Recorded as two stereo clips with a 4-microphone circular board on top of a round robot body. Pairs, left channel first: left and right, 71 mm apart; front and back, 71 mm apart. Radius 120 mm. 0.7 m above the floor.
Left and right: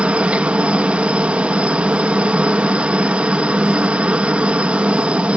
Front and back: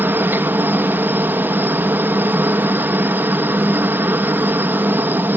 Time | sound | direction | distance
0.0 | a helicopter | 150° right | ?